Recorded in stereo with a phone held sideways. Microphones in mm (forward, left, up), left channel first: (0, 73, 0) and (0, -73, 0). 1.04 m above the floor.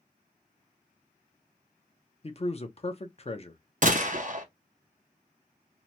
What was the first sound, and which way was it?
A man speaking, 40° left (ahead or behind).